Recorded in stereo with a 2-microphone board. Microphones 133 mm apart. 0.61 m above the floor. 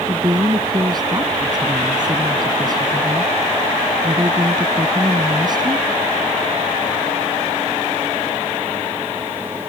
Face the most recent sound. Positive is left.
turn(degrees=-30)  # may be behind; listen again after turning